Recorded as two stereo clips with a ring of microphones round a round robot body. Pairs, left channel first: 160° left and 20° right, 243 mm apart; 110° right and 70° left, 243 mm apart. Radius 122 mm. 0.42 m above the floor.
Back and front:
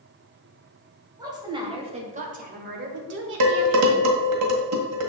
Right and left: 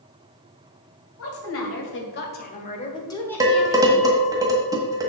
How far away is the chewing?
I don't hear chewing.